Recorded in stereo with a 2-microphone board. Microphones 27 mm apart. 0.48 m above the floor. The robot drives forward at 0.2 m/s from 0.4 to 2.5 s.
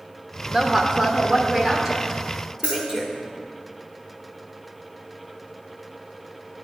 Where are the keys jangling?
45° right (ahead or behind), 2.5 m.